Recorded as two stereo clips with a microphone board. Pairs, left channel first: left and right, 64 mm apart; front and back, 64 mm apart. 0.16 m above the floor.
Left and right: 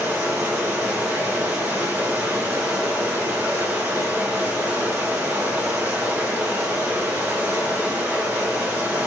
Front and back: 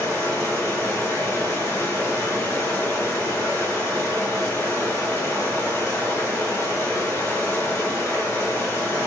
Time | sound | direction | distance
0.0 | running water | 35° right | 1.4 m